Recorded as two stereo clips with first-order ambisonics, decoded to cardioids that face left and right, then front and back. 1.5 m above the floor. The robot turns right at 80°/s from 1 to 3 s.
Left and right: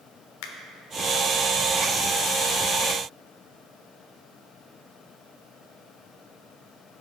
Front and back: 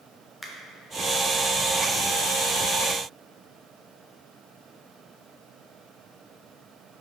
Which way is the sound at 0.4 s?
90° left.